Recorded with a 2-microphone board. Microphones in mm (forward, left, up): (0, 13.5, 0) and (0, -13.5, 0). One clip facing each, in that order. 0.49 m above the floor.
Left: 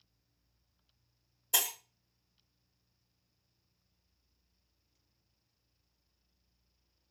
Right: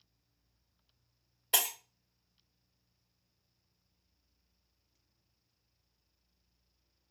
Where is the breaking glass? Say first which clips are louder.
Right 1 dB; 45° right (ahead or behind), 1.2 m.